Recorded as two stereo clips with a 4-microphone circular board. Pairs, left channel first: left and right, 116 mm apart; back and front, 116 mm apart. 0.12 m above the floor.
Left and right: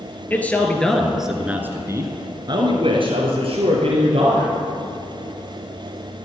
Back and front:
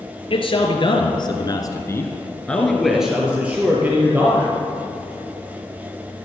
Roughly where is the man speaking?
Behind.